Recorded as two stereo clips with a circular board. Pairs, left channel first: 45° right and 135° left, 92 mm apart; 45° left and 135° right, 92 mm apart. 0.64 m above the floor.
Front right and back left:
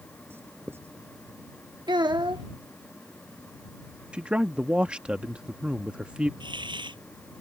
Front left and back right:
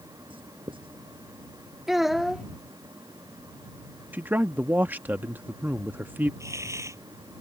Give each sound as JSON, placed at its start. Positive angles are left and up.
{"t": 0.3, "sound": "writing", "azimuth_deg": -160}
{"t": 1.9, "sound": "a child speaking", "azimuth_deg": 140}
{"t": 4.1, "sound": "a man speaking", "azimuth_deg": -165}
{"t": 6.4, "sound": "a hiss", "azimuth_deg": 165}